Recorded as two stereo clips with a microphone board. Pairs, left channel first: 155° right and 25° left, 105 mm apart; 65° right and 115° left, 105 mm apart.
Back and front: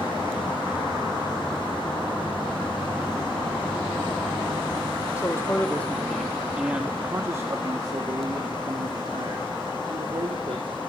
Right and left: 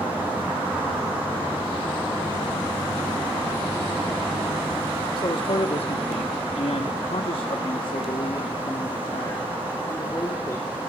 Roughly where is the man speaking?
Right.